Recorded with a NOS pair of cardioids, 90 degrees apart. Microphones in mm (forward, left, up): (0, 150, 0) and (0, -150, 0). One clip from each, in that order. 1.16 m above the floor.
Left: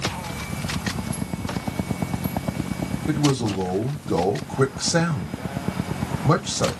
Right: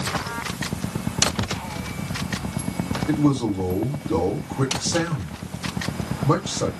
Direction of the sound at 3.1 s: 30° left.